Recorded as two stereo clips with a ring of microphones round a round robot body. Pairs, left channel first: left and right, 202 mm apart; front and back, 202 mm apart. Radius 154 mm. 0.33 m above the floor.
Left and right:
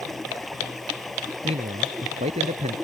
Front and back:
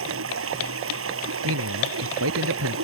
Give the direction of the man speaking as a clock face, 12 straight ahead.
5 o'clock.